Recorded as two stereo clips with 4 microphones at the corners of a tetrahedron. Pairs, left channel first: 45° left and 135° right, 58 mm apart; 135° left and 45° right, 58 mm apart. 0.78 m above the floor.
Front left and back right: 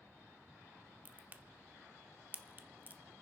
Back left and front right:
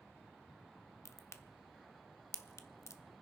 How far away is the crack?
About 0.7 m.